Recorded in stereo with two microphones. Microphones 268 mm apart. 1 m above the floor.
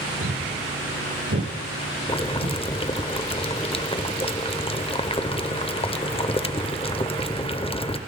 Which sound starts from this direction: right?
Footsteps, at 0.2 s.